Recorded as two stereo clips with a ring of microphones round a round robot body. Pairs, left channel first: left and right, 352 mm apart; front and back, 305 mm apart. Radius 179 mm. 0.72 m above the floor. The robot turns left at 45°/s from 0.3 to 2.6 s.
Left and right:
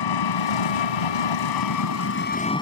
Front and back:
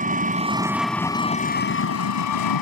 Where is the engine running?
115° left; by 2.6 s 10° left.